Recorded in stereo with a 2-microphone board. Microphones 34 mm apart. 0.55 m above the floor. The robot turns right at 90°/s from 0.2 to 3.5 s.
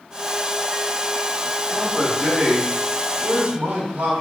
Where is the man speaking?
155° left, 3.5 m; by 4.1 s 45° right, 3.5 m.